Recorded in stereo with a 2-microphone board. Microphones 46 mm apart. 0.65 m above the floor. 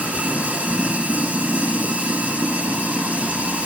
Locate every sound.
0.0 s running water: 30° right (ahead or behind), 9 m